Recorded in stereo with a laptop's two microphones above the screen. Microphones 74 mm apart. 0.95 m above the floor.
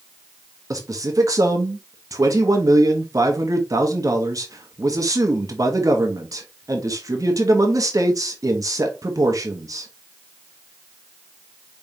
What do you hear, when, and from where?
0.7 s a man speaking: 50° right (ahead or behind), 1.1 m